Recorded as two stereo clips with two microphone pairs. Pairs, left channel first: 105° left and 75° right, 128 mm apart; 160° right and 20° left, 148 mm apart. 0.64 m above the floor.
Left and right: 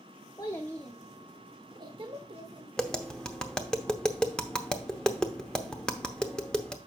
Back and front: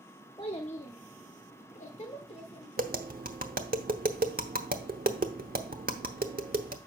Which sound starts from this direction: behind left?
A child speaking, at 0.4 s.